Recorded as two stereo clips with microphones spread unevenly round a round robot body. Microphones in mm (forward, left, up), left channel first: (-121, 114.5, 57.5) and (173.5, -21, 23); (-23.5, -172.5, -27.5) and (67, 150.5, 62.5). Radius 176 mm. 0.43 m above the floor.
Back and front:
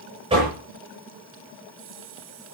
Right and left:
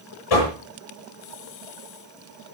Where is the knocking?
100° right, 8.5 m.